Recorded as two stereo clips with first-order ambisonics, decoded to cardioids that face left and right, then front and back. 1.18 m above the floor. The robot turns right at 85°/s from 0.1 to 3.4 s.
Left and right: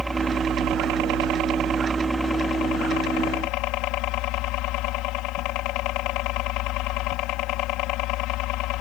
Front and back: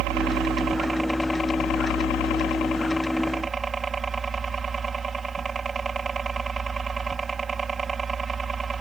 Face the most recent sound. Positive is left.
turn(degrees=105)